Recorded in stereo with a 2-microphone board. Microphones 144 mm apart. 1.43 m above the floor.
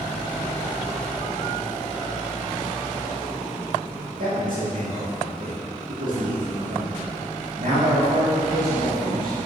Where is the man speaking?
80° right, 2 m.